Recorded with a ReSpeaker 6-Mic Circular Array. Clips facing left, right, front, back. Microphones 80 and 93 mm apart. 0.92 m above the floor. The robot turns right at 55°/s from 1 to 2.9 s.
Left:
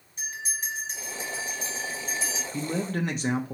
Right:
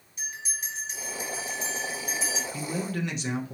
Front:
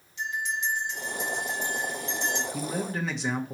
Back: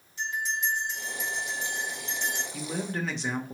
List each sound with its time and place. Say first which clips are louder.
0.2 s a bell: left 3 dB, even; 135° left, 2.5 m; by 2.4 s 145° right, 2.5 m
2.5 s a man speaking: left 5 dB, front 2 dB; 70° left, 0.7 m; by 3.5 s 90° left, 0.7 m